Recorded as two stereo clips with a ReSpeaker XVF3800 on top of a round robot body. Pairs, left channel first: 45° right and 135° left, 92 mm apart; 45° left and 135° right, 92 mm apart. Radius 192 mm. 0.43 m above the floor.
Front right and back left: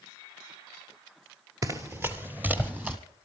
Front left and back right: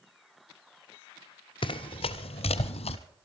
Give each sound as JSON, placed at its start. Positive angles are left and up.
{"t": 1.6, "sound": "running footsteps", "azimuth_deg": 80, "distance_m": 0.6}